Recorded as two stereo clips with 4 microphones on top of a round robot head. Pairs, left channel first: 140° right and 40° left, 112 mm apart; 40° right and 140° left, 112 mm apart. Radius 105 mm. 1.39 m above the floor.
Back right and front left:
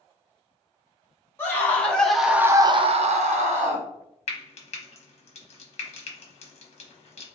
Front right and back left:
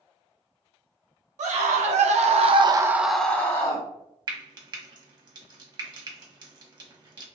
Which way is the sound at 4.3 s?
170° right.